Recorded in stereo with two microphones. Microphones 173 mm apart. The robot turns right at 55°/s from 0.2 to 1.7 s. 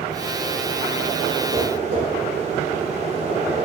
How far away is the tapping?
About 1.2 m.